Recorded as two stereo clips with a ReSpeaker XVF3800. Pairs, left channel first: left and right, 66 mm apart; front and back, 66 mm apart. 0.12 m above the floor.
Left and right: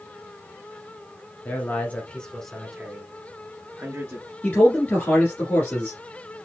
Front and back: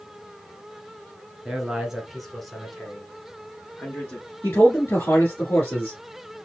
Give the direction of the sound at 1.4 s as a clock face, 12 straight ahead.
8 o'clock.